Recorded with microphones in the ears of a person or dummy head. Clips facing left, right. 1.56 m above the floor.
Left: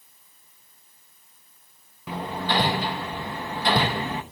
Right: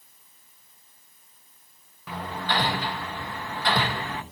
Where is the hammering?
15° left (ahead or behind), 0.7 m.